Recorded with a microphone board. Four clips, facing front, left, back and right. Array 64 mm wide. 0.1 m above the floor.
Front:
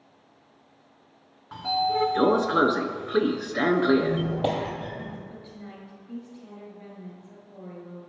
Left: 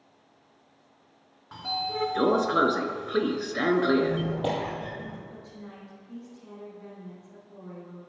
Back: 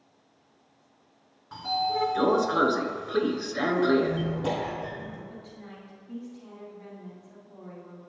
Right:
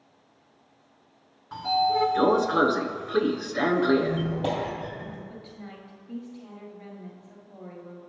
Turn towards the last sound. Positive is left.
turn(degrees=-75)